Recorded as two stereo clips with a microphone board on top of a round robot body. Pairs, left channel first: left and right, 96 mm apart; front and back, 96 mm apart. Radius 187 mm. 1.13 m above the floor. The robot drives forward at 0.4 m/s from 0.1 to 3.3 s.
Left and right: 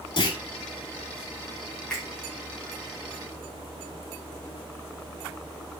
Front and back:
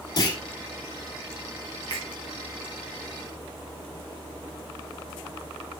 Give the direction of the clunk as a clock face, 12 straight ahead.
10 o'clock.